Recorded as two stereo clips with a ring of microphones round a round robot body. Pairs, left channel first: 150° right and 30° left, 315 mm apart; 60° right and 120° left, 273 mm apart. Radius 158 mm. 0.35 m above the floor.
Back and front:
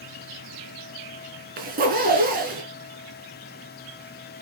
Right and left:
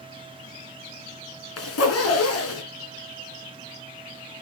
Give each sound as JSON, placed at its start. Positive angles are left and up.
{"t": 1.6, "sound": "a zipper", "azimuth_deg": -30, "distance_m": 3.5}